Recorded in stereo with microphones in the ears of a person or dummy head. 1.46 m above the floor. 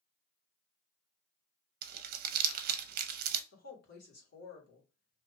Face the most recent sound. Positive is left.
turn(degrees=65)  # may be behind; listen again after turning